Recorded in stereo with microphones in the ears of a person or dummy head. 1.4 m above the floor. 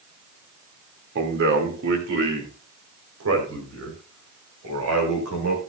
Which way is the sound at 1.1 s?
55° right (ahead or behind).